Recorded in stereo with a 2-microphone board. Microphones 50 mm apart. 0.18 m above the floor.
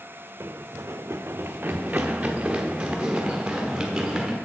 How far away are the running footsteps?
About 0.5 m.